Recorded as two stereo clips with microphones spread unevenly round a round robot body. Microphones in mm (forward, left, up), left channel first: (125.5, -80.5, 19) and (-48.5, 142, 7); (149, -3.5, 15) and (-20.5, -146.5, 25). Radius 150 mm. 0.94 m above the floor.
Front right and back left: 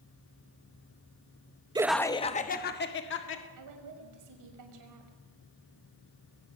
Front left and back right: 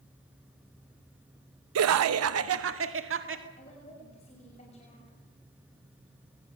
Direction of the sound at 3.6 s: 110° left.